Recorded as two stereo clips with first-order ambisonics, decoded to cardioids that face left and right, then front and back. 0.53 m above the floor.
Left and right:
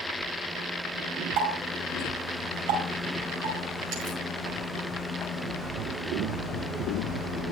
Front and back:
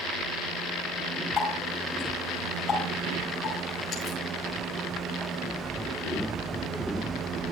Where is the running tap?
70° right, 8 m.